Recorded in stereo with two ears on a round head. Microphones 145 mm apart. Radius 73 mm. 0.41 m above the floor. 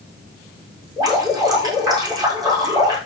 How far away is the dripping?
About 8 m.